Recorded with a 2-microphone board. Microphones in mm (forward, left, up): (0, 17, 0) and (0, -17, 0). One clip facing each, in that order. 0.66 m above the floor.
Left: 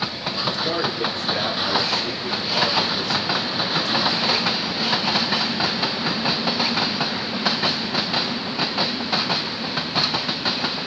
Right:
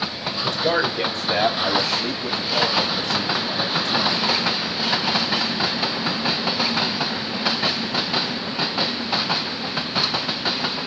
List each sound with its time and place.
0.4 s a man speaking: 80° right, 3 m; by 4.5 s 40° right (ahead or behind), 4 m